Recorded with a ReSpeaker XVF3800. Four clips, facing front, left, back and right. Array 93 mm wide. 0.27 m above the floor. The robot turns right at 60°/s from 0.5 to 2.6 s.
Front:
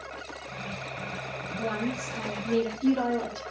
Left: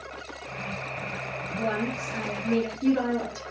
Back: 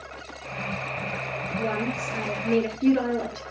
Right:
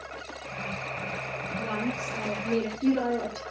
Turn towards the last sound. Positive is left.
turn(degrees=165)